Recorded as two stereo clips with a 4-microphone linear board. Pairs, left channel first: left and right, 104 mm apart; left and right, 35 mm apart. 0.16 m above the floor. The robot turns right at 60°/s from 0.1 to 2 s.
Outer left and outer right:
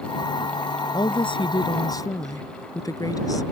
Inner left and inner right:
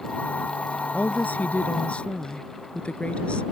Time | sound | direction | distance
0.9 | a woman speaking | 70° left | ?